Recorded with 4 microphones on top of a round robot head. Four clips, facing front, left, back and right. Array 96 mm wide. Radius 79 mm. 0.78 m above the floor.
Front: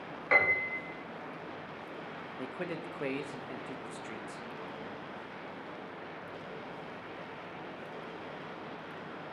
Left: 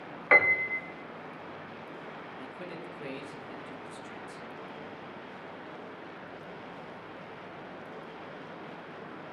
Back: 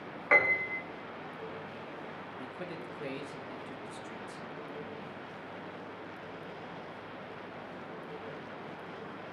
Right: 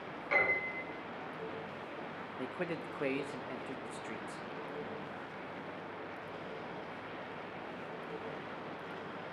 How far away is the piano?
About 1.8 m.